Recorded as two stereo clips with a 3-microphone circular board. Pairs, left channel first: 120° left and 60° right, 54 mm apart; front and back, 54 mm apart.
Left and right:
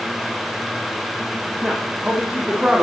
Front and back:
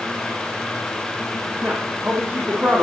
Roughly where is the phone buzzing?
I don't hear a phone buzzing.